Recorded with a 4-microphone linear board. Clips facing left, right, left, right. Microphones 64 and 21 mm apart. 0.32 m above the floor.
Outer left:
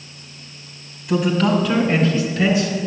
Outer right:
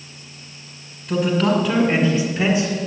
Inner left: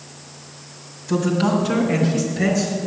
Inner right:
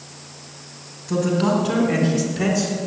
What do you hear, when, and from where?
1.1 s a man speaking: centre (ahead or behind), 2 m; by 2.7 s 30° right (ahead or behind), 2.5 m